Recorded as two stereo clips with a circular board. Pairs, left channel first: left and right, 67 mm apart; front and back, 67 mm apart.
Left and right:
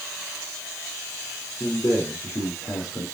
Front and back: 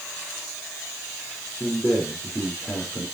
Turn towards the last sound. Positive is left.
turn(degrees=55)